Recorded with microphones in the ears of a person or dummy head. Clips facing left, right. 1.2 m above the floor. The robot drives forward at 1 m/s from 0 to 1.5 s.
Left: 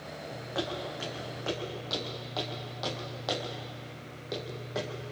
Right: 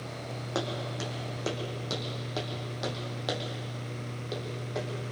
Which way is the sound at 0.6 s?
65° right (ahead or behind).